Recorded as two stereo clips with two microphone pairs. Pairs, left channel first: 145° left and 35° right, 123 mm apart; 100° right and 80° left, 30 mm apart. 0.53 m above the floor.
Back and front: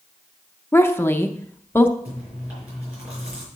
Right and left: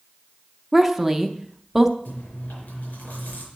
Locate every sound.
0.7 s a woman speaking: 160° left, 0.6 m
2.0 s chewing: 110° right, 4.5 m